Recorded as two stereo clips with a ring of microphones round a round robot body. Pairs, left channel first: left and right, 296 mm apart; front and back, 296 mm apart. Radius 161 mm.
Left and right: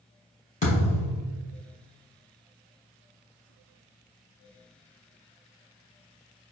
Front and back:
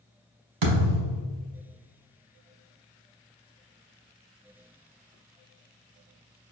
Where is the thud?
160° left, 1.3 m.